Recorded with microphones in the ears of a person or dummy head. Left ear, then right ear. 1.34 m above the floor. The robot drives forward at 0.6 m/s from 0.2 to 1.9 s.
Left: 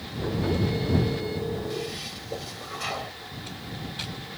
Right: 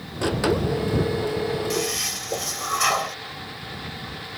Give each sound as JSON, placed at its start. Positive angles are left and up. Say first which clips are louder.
{"t": 1.7, "sound": "a toilet flushing", "louder": "right 8 dB", "side_deg": -55}